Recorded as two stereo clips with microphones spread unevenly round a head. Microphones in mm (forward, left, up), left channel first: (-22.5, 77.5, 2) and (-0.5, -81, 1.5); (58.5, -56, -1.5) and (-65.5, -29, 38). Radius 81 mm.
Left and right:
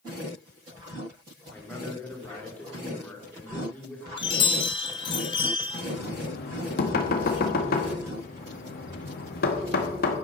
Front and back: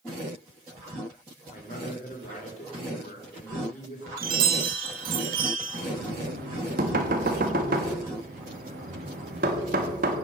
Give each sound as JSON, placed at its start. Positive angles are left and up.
{"t": 1.5, "sound": "a man speaking", "azimuth_deg": 15, "distance_m": 2.5}
{"t": 4.2, "sound": "a chime", "azimuth_deg": 160, "distance_m": 1.5}
{"t": 5.9, "sound": "knocking", "azimuth_deg": 125, "distance_m": 1.6}